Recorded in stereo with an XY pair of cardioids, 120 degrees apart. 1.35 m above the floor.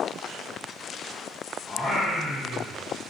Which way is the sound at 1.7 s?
15° left.